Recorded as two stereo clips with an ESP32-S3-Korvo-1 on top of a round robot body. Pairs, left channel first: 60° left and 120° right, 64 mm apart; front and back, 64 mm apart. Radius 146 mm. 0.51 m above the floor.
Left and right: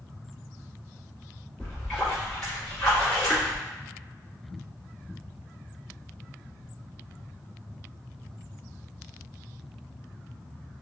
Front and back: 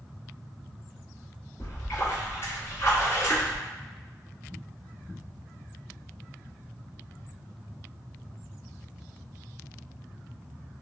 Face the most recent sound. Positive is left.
turn(degrees=-15)